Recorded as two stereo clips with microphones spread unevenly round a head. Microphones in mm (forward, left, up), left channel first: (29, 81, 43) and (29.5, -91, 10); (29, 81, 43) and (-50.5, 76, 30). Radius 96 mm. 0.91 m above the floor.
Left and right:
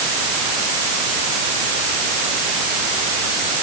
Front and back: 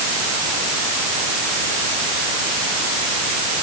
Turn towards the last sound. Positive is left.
No sound to turn to.